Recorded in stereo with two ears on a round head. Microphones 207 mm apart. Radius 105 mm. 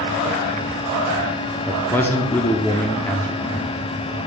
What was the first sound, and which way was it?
A man speaking, 10° left (ahead or behind).